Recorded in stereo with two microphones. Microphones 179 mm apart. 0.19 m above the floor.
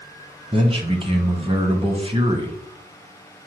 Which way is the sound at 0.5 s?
30° right (ahead or behind).